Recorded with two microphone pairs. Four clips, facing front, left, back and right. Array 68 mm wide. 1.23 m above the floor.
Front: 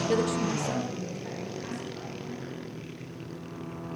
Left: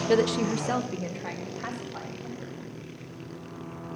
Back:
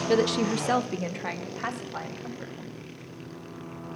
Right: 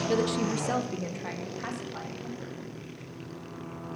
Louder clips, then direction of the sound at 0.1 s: Left 5 dB, back 5 dB; 110° left.